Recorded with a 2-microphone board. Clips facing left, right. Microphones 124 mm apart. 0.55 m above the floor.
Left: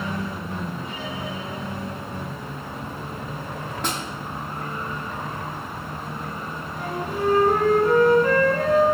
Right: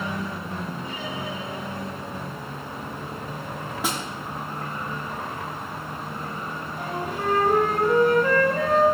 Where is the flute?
40° left (ahead or behind), 1.4 m.